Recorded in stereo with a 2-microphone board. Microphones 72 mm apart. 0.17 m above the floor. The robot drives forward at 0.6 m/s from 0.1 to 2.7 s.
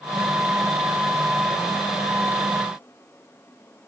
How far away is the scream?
I don't hear a scream.